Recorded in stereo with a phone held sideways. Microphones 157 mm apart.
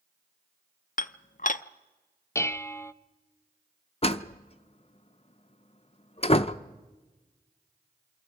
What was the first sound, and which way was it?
Dishes clattering, 55° left (ahead or behind).